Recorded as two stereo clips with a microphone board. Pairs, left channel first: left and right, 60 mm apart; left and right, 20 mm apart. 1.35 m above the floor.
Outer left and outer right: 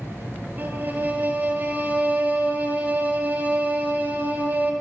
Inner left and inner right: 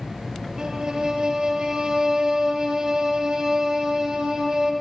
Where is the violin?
30° right (ahead or behind), 0.5 m.